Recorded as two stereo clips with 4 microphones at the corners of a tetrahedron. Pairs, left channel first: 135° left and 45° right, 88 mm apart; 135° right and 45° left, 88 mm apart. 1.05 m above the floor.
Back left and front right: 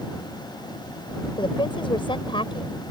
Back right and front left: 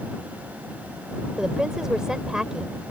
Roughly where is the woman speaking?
Behind left.